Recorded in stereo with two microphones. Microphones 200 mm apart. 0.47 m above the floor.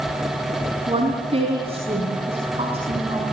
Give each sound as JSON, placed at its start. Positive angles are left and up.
{"t": 0.9, "sound": "a woman speaking", "side_deg": -30, "distance_m": 5.5}